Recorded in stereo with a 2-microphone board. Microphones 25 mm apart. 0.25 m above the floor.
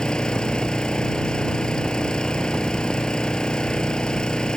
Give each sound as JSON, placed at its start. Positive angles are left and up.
{"t": 0.0, "sound": "an engine running", "side_deg": 35}